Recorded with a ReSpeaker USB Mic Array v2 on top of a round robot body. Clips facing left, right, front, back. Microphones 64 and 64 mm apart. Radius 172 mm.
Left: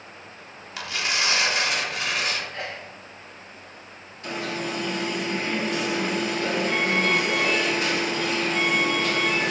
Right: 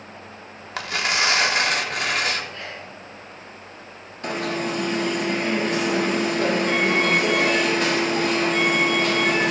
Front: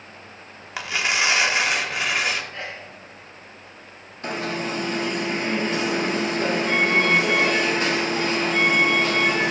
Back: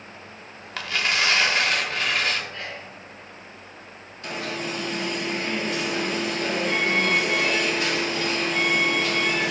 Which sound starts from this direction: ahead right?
An alarm, at 4.2 s.